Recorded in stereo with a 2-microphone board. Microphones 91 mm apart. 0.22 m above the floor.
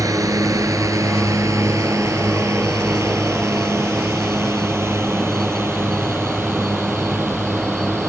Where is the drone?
35° right (ahead or behind); by 8.1 s 25° right (ahead or behind).